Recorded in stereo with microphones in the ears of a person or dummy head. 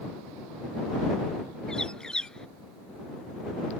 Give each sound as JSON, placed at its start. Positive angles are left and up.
{"t": 1.7, "sound": "a bird", "side_deg": 5}